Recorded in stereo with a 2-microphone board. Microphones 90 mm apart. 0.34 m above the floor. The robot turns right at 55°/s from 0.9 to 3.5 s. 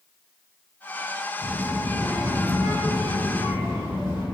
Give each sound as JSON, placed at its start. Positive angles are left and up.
{"t": 1.4, "sound": "a child speaking", "azimuth_deg": -10, "distance_m": 1.9}